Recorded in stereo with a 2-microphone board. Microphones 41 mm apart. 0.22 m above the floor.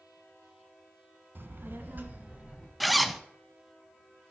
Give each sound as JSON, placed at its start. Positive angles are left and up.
{"t": 1.4, "sound": "a child speaking", "side_deg": -55, "distance_m": 1.1}
{"t": 2.8, "sound": "a zipper", "side_deg": 0, "distance_m": 0.6}